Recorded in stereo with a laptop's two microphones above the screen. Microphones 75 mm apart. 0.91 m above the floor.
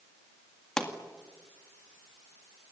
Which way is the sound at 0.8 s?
10° left (ahead or behind).